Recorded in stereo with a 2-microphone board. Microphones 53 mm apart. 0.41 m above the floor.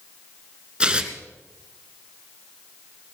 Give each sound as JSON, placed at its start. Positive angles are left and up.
{"t": 0.8, "sound": "tearing paper", "side_deg": -20, "distance_m": 1.2}